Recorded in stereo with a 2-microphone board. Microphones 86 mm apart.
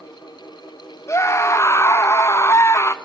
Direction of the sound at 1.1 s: 30° left (ahead or behind).